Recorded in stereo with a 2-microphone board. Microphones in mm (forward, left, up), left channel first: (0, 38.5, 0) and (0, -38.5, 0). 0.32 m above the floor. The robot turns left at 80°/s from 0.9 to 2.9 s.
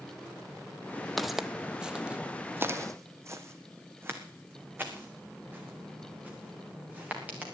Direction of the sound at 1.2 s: Centre (ahead or behind).